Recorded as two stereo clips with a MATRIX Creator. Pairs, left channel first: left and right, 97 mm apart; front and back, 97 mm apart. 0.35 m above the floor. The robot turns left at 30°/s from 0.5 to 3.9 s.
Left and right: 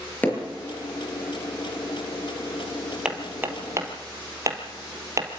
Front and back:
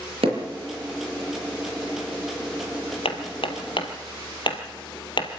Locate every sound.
0.2 s hammering: 160° left, 5.5 m
3.0 s hammering: 10° right, 2.5 m; by 5.3 s 35° right, 2.5 m